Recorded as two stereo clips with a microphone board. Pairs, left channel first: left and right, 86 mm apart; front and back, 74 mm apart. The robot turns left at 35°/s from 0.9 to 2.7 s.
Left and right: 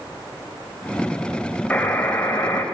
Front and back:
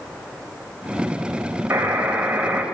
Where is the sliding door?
No sliding door in this recording.